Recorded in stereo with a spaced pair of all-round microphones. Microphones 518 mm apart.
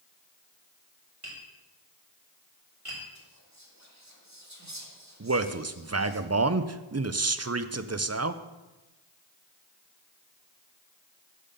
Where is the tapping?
85° right, 4 m.